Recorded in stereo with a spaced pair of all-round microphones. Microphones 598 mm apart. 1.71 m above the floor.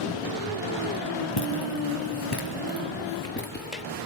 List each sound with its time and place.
1.4 s footsteps: 40° left (ahead or behind), 3 m; by 3.8 s 10° left (ahead or behind), 2.5 m